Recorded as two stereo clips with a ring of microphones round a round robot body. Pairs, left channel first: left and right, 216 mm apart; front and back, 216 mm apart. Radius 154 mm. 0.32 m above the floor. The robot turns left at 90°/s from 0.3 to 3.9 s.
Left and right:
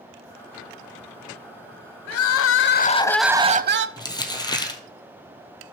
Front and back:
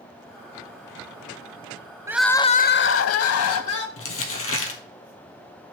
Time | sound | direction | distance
2.1 | crying | 100° left | 0.6 m
4.0 | crumpling | 20° left | 1.7 m